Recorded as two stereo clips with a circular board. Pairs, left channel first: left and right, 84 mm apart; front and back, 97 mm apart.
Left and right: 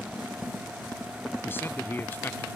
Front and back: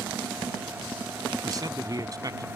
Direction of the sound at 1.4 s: 145° left.